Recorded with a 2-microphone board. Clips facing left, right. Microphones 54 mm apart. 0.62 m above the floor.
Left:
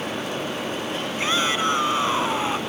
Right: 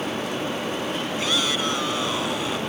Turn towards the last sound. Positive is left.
turn(degrees=30)  # may be behind; listen again after turning